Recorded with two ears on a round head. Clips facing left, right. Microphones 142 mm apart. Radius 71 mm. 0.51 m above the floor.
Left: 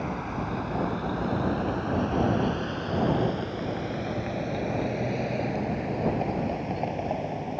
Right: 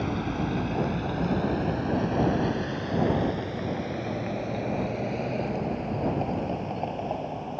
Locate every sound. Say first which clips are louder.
0.0 s a vehicle: right 3 dB; 45° right (ahead or behind); by 7.6 s 10° left (ahead or behind)